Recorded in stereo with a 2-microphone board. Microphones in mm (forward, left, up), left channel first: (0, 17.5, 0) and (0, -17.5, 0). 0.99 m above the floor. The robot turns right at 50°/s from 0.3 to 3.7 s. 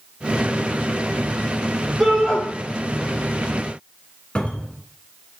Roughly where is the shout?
Centre.